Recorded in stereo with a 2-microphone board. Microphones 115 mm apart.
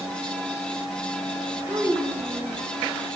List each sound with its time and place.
1.7 s a child speaking: 25° right (ahead or behind), 2.0 m